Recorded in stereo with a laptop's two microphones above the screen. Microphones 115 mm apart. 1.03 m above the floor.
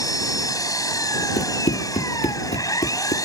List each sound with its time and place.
0.0 s an engine running: 30° left (ahead or behind)
1.4 s running footsteps: 60° left (ahead or behind); by 3.1 s 55° left (ahead or behind)